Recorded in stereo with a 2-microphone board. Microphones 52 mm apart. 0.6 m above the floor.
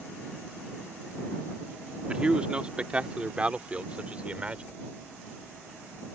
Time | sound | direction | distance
2.1 | a man speaking | 20° right (ahead or behind) | ?